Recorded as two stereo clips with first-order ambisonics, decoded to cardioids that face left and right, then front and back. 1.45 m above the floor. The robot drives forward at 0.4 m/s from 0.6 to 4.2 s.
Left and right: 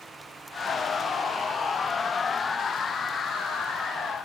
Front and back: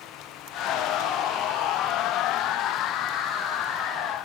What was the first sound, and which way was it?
Only background noise.